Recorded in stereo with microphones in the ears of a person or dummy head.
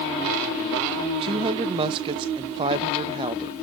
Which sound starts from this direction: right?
A woman speaking, at 1.2 s.